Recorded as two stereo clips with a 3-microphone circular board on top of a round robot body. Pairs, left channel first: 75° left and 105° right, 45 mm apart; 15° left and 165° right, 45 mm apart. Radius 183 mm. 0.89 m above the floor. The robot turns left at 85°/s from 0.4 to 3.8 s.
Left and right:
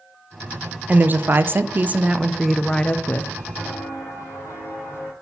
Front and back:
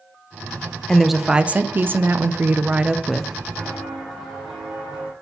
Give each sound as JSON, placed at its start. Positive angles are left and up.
{"t": 0.9, "sound": "a woman speaking", "azimuth_deg": -60, "distance_m": 0.7}
{"t": 3.6, "sound": "footsteps", "azimuth_deg": 110, "distance_m": 2.5}